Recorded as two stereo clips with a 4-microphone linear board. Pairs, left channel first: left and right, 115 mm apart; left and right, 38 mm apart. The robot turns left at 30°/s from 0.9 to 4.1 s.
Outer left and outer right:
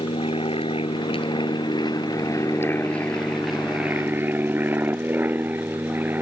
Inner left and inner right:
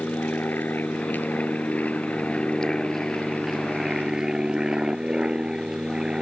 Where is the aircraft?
75° left; by 6.2 s 20° right.